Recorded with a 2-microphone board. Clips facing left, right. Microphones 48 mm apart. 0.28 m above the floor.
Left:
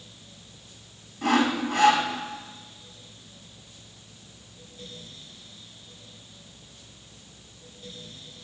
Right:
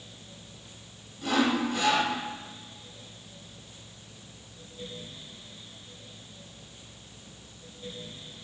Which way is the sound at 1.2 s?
60° left (ahead or behind).